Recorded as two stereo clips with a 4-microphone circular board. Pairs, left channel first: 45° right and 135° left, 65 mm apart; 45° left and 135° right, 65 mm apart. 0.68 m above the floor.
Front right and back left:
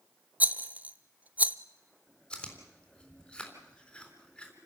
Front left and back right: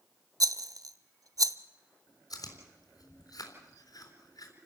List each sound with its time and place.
0.4 s a rattle: 160° right, 0.8 m
2.3 s chewing: 30° left, 3.5 m